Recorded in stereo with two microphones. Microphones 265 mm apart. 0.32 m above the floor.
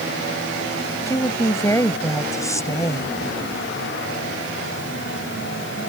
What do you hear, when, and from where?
1.1 s a woman speaking: 10° left (ahead or behind)